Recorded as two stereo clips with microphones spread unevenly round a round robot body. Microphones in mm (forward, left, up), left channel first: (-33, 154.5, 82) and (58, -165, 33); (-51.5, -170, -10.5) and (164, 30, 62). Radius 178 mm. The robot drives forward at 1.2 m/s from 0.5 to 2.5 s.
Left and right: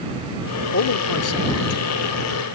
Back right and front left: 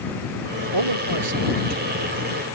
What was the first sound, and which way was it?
A man speaking, 55° left.